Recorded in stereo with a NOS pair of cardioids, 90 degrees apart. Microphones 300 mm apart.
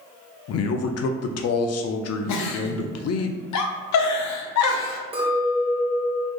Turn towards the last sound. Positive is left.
turn(degrees=-20)